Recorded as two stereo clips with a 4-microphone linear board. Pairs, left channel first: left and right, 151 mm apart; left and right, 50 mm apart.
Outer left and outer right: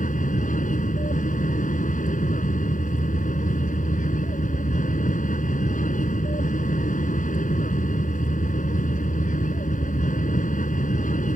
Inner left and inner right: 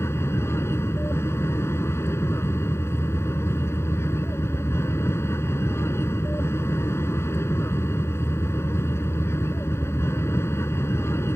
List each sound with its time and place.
0.0 s an aircraft: 60° left (ahead or behind)